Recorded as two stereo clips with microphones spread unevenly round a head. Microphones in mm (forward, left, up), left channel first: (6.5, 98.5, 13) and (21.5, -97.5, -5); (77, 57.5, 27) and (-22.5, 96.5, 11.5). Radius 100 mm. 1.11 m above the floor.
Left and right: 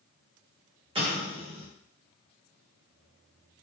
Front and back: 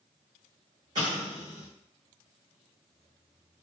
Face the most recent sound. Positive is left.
turn(degrees=-145)